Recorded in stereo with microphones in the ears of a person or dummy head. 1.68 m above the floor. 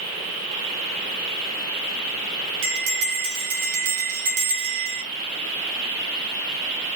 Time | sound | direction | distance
2.6 | a bell | 70° right (ahead or behind) | 2.5 m